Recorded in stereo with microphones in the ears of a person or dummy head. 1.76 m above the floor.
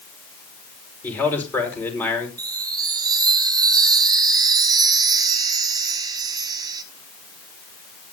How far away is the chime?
About 1.2 m.